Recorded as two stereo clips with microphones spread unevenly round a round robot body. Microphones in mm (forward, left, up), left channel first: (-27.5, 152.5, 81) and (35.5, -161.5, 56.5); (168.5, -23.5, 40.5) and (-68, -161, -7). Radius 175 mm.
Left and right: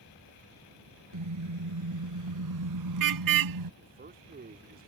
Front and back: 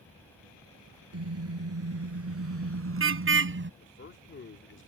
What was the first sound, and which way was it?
A car horn, 115° right.